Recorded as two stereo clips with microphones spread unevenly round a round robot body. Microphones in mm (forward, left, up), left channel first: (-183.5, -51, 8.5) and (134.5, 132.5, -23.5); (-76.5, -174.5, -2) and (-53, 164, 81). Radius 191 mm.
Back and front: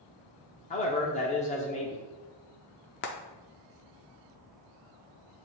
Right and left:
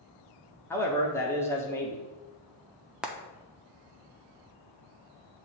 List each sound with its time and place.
0.7 s a man speaking: 95° right, 0.7 m
3.0 s frying: 155° right, 0.5 m